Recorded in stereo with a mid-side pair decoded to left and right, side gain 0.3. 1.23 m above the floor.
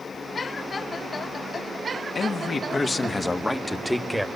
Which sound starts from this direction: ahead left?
A man speaking, at 2.1 s.